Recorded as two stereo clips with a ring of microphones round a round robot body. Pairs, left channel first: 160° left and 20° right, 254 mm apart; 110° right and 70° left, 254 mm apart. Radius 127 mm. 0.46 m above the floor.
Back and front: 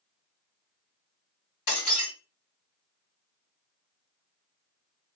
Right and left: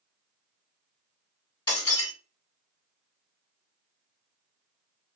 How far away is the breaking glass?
About 2 m.